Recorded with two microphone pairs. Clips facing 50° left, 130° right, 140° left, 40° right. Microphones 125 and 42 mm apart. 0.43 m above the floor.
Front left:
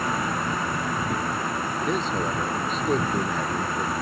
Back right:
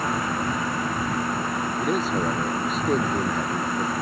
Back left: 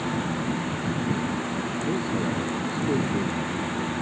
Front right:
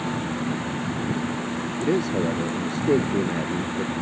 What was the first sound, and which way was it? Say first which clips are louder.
A man speaking: back right 2 dB, front right 6 dB; 45° right.